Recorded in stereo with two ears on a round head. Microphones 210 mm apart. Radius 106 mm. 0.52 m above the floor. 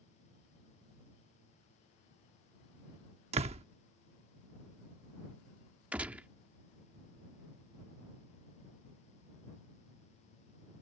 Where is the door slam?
25° right (ahead or behind).